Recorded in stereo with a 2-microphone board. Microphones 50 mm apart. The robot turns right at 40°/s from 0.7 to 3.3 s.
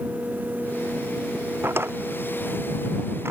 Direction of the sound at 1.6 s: 55° right (ahead or behind).